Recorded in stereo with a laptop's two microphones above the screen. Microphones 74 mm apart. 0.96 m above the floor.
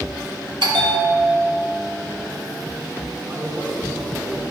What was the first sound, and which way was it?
A bell, 85° right.